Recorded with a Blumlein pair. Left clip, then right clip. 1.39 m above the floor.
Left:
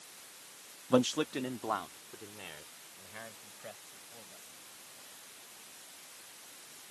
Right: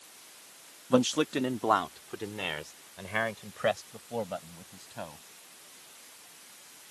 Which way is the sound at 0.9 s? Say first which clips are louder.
Right 3 dB; 5° right.